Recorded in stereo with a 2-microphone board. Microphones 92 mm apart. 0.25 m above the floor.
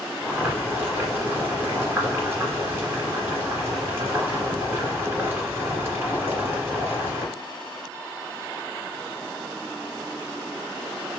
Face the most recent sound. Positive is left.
turn(degrees=-20)  # may be behind; listen again after turning